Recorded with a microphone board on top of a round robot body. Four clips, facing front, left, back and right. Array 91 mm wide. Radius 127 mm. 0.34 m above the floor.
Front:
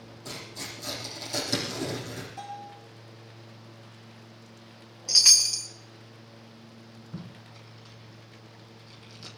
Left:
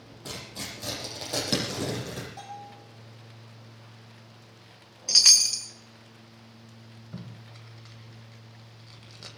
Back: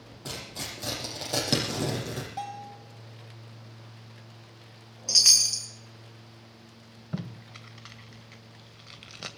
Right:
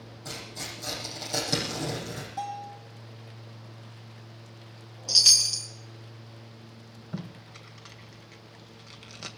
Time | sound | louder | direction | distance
0.2 | tearing paper | left 1 dB, back 2 dB | 150° left | 7 m
2.4 | a bell | right 7 dB, back 3 dB | straight behind | 5.5 m
5.1 | a chime | left 1 dB, front 1 dB | 75° left | 1.9 m
7.1 | tape being pulled | right 5 dB, back 6 dB | 165° right | 1.7 m